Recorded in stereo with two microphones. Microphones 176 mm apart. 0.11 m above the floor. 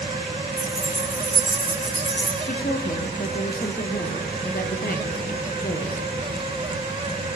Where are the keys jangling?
70° right (ahead or behind), 7 m; by 2.4 s 60° right (ahead or behind), 6 m.